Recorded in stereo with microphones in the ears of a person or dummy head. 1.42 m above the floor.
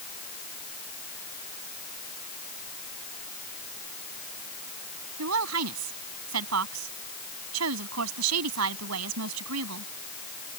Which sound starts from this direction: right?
A woman speaking, at 5.2 s.